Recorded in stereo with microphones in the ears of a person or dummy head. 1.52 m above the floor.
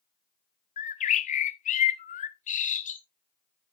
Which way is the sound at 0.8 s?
35° left (ahead or behind).